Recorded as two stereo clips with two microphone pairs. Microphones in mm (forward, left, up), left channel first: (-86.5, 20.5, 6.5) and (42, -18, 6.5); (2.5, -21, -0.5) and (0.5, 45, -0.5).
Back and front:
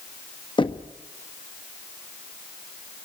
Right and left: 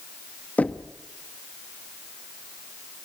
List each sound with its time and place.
0.6 s knocking: 155° right, 1.2 m